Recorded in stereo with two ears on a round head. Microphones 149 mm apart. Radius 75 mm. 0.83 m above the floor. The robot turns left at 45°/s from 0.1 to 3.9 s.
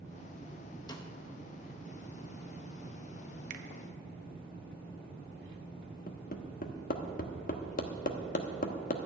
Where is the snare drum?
25° left (ahead or behind), 1.0 m; by 1.1 s 30° left (ahead or behind), 1.0 m.